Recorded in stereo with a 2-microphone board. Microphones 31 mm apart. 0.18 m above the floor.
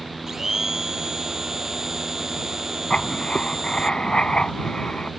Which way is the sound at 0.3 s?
20° right (ahead or behind).